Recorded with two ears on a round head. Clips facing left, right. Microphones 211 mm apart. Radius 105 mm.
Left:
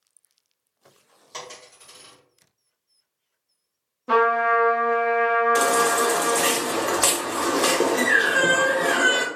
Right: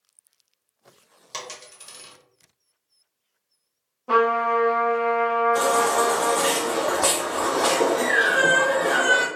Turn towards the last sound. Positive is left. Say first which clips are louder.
# even
turn(degrees=35)  # may be behind; listen again after turning